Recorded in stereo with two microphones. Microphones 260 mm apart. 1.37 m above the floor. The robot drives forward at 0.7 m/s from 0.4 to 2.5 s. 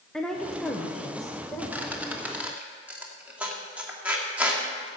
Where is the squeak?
5° right (ahead or behind), 1.6 m.